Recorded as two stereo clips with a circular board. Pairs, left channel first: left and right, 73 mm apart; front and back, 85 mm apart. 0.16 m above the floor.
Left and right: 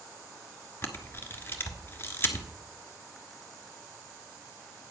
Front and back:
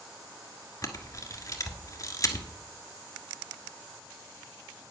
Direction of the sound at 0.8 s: 35° left.